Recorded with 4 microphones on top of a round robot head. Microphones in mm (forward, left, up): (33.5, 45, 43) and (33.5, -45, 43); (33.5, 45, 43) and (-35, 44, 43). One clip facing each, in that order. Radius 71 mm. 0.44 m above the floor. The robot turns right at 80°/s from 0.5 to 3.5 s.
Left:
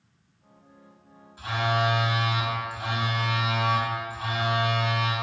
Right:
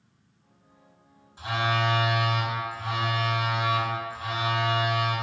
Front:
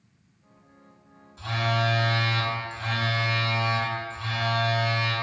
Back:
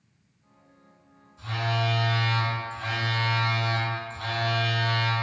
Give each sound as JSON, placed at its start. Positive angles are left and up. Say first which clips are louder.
{"t": 1.4, "sound": "a phone buzzing", "louder": "left 1 dB, front 2 dB", "azimuth_deg": -25, "distance_m": 0.7}